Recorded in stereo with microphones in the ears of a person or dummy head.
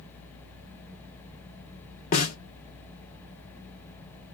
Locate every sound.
2.1 s a snare drum: 45° left (ahead or behind), 1.2 m